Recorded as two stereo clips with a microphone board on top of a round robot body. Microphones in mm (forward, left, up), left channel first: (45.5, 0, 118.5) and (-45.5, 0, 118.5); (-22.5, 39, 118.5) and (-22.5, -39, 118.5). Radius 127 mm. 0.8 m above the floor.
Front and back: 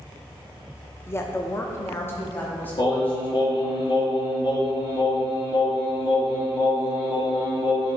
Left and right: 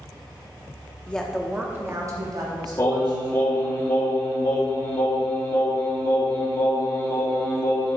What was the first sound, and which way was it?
A woman speaking, 30° left.